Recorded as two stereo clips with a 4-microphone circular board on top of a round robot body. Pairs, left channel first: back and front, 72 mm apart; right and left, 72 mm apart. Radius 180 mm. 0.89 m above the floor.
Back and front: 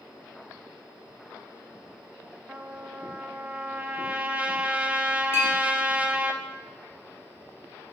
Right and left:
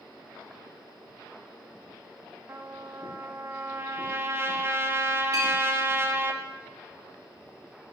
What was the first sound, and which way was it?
A trumpet, 60° left.